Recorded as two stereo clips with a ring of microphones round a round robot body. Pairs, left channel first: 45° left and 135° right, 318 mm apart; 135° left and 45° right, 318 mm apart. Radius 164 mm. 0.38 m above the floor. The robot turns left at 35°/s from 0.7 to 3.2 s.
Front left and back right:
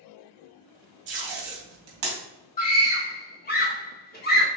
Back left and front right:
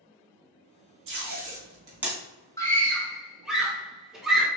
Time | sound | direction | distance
1.1 | tape being pulled | 95° right | 2.5 m
2.6 | a scream | 65° left | 1.5 m